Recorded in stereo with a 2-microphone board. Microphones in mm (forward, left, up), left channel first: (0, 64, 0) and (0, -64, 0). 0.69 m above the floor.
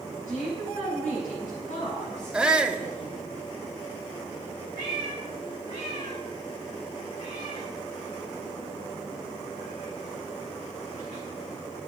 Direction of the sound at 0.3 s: 80° left.